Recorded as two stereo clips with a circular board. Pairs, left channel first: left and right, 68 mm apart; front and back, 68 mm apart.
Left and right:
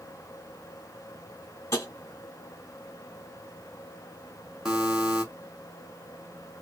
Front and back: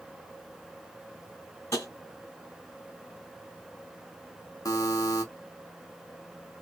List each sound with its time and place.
1.7 s tapping: 40° left, 2 m
4.7 s a buzzer: 10° right, 1.2 m